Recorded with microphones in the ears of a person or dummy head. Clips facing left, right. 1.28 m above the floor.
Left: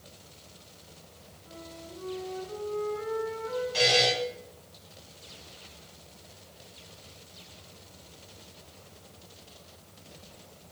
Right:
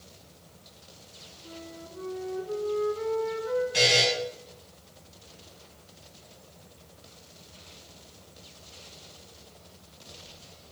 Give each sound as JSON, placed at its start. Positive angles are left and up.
{"t": 1.4, "sound": "a flute", "side_deg": -55, "distance_m": 8.0}
{"t": 3.7, "sound": "a buzzer", "side_deg": -35, "distance_m": 9.5}